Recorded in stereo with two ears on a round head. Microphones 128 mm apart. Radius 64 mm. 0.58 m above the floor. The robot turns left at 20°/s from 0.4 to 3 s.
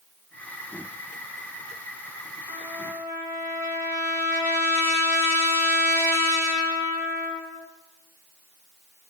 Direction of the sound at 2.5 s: 25° right (ahead or behind).